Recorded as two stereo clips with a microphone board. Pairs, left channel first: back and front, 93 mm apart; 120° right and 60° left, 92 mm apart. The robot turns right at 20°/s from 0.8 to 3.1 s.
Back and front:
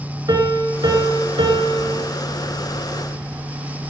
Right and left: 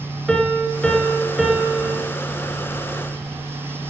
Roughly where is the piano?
Ahead right.